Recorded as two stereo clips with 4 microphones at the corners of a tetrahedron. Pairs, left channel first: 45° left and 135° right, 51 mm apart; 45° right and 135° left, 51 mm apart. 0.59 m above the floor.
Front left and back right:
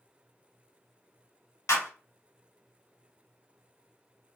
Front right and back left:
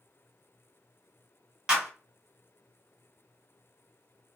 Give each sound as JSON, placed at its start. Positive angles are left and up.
{"t": 1.7, "sound": "a clap", "azimuth_deg": 60, "distance_m": 1.6}